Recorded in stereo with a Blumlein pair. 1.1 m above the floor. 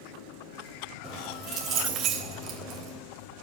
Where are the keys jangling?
30° right, 3 m.